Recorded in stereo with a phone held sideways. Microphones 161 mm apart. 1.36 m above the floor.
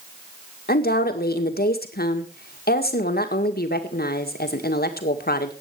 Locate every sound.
0.7 s a woman speaking: 75° left (ahead or behind), 2.0 m